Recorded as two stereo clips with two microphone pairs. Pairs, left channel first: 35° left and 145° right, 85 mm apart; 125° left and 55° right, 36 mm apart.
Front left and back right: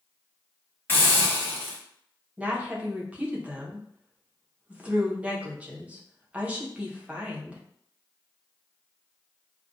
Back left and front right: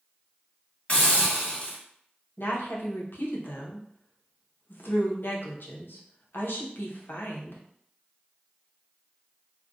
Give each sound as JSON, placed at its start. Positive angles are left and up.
{"t": 0.9, "sound": "a hiss", "azimuth_deg": 90, "distance_m": 1.7}
{"t": 2.4, "sound": "a woman speaking", "azimuth_deg": 140, "distance_m": 0.8}